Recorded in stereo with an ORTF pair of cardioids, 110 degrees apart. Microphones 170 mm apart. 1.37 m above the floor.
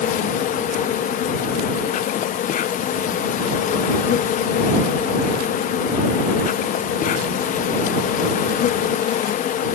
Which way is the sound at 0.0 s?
50° left.